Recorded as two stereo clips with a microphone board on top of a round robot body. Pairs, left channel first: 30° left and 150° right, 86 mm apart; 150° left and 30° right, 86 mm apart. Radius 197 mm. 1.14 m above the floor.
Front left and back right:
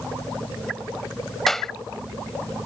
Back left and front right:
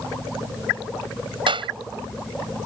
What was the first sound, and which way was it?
A clap, 55° right.